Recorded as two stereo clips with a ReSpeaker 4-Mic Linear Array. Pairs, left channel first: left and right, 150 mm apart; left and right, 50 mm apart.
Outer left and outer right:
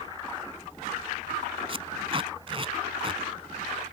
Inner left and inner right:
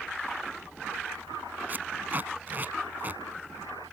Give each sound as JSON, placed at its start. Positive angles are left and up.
{"t": 1.7, "sound": "tape being pulled", "side_deg": -40}